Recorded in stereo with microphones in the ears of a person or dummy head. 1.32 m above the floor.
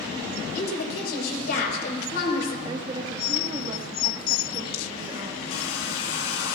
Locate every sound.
0.6 s a woman speaking: 65° left (ahead or behind), 5 m
2.6 s a woman speaking: 30° right (ahead or behind), 1.8 m
5.5 s a hair dryer: 70° left (ahead or behind), 1.2 m